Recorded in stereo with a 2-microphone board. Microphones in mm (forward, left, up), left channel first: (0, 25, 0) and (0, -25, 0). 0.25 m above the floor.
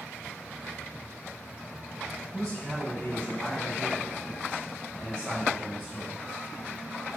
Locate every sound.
2.3 s a man speaking: 20° left (ahead or behind), 1.8 m; by 6.2 s centre (ahead or behind), 1.7 m